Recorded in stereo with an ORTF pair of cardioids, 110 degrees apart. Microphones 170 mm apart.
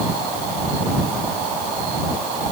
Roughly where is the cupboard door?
I don't hear a cupboard door.